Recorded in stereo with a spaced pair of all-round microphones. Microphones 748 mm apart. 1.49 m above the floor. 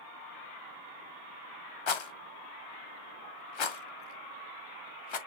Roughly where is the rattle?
Left.